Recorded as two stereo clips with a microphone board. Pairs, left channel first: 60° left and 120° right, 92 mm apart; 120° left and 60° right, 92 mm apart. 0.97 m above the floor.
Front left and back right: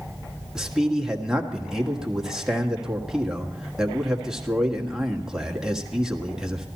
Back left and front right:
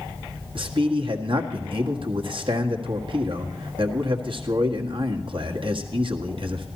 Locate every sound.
0.6 s a man speaking: 35° right, 1.6 m